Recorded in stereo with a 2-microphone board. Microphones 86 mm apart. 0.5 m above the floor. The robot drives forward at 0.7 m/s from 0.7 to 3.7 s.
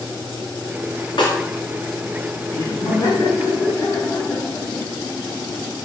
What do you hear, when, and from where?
1.2 s a snare drum: 75° left (ahead or behind), 2.5 m
2.5 s laughter: 45° left (ahead or behind), 3.5 m; by 5.7 s 35° left (ahead or behind), 4 m